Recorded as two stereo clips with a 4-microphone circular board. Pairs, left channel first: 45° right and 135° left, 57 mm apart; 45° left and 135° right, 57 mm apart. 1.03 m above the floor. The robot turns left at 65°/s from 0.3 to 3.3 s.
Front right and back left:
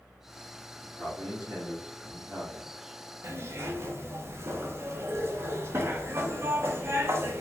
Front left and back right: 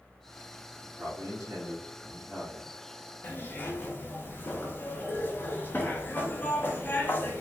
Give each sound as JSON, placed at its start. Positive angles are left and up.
{"t": 0.8, "sound": "a man speaking", "azimuth_deg": -110, "distance_m": 1.3}
{"t": 3.2, "sound": "a zipper", "azimuth_deg": 100, "distance_m": 0.6}